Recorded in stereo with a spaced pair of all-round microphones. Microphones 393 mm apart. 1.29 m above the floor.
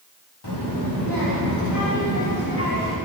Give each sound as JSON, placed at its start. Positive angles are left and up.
{"t": 0.4, "sound": "a child speaking", "side_deg": 80, "distance_m": 2.0}